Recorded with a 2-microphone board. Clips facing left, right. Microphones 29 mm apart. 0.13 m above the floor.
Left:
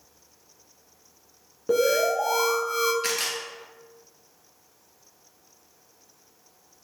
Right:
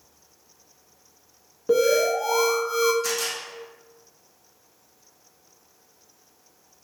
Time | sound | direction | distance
1.7 | an alarm | centre (ahead or behind) | 0.8 m
3.0 | a camera shutter | 55° left (ahead or behind) | 0.8 m